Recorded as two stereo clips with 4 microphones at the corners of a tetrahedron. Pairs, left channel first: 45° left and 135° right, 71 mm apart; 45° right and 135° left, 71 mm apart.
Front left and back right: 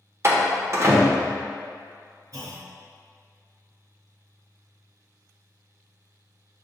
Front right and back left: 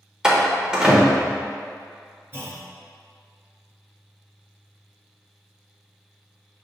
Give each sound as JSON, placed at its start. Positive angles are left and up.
{"t": 0.2, "sound": "a door slam", "azimuth_deg": -155, "distance_m": 0.7}
{"t": 2.3, "sound": "a clunk", "azimuth_deg": -165, "distance_m": 1.2}